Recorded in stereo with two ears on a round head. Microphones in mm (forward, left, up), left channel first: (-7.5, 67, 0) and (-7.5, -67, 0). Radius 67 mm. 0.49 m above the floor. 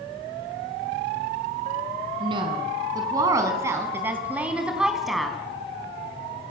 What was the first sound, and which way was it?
A woman speaking, 35° right (ahead or behind).